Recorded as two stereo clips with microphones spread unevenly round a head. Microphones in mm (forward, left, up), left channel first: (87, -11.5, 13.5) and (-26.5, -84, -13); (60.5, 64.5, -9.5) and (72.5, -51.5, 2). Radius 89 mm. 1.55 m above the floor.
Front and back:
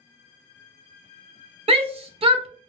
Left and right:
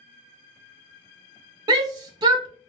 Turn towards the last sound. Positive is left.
turn(degrees=-105)